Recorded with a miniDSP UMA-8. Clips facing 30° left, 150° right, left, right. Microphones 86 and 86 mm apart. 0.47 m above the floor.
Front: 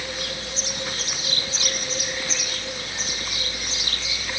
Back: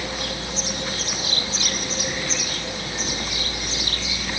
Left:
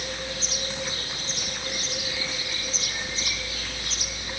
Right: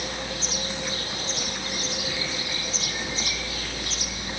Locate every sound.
0.0 s a vehicle: 130° right